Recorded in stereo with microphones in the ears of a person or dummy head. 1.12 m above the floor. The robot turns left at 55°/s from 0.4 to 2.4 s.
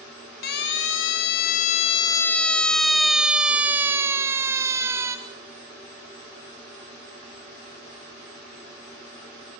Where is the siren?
50° left (ahead or behind), 2.5 m; by 5.2 s 15° right (ahead or behind), 1.8 m.